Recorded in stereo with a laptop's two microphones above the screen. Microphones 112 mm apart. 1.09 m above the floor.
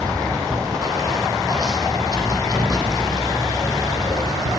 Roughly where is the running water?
Right.